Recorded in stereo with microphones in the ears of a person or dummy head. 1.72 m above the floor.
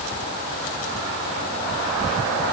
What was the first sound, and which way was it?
Only background noise.